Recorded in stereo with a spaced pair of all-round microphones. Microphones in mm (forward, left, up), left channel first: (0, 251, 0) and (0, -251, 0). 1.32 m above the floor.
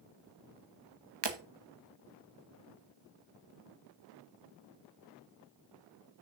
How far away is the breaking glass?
About 1.2 m.